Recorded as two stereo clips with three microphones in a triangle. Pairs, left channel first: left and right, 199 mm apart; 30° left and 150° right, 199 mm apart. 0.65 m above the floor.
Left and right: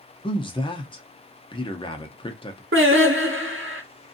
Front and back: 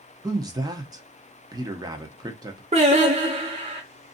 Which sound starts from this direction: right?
Singing, at 2.7 s.